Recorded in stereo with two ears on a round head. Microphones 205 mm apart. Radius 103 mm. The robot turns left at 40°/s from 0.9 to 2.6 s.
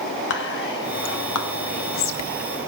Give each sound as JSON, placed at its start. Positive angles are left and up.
{"t": 0.3, "sound": "whispering", "side_deg": 55, "distance_m": 1.5}